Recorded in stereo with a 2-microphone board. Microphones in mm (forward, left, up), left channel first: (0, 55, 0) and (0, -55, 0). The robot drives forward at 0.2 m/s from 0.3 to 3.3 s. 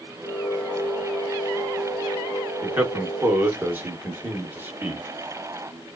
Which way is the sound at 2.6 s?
15° right (ahead or behind).